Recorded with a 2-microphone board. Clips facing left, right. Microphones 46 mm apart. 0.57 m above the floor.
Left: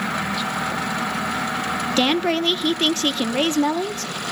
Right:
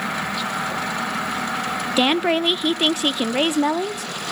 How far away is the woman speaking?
About 0.6 m.